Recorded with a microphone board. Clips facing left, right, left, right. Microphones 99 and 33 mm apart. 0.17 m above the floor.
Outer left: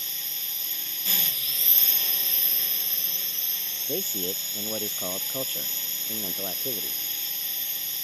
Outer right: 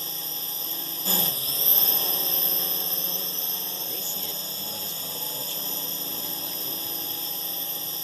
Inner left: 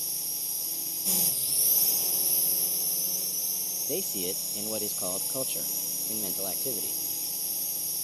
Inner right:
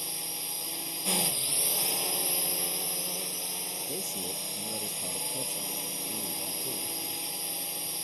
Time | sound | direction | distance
0.0 | a drone | 35° right (ahead or behind) | ?
3.9 | a man speaking | 45° left (ahead or behind) | ?